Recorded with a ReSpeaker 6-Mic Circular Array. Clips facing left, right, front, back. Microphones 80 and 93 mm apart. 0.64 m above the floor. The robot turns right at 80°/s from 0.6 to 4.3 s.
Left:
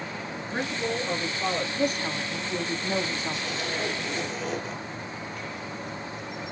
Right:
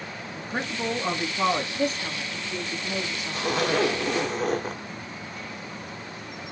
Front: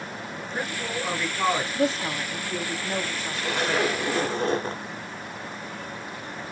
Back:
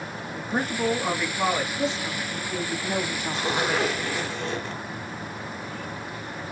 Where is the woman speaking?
Straight ahead, 1.1 m; by 3.5 s 135° left, 1.1 m.